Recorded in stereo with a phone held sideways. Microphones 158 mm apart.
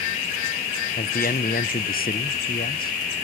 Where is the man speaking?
65° left (ahead or behind), 0.5 m.